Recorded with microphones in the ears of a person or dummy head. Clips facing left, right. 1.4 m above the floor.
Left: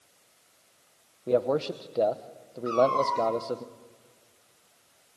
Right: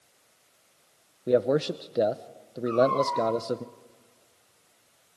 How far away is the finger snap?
No finger snap in this recording.